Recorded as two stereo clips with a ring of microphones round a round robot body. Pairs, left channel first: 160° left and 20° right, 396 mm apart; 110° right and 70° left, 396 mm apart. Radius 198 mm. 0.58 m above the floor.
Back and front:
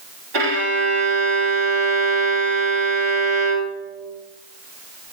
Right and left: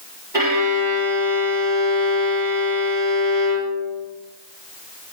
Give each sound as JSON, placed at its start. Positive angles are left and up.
{"t": 0.3, "sound": "a violin", "azimuth_deg": -15, "distance_m": 1.6}